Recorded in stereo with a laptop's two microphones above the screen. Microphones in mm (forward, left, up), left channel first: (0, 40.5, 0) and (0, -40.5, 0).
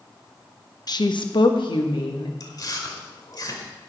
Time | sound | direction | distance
0.9 | a woman speaking | 55° left (ahead or behind) | 0.6 m
2.4 | chewing | 50° left (ahead or behind) | 1.4 m